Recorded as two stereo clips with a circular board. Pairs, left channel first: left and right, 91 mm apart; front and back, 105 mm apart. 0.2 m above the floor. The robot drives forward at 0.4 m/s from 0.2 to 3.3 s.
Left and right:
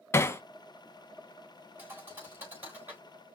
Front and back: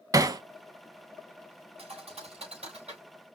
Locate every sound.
0.1 s hammering: 135° left, 0.6 m; by 0.4 s 145° left, 0.7 m
1.8 s a thud: 155° right, 4 m; by 3.0 s 160° right, 4.5 m